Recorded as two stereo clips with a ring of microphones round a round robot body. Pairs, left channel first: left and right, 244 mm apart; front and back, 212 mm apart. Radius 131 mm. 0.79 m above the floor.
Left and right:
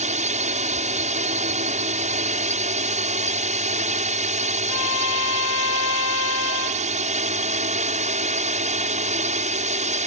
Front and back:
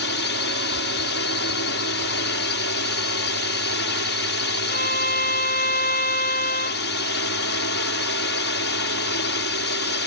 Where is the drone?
30° right.